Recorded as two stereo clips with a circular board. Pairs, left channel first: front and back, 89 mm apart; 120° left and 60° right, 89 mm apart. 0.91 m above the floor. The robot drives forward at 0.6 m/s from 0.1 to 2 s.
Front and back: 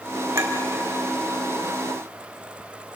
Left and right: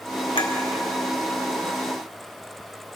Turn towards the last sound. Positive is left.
turn(degrees=140)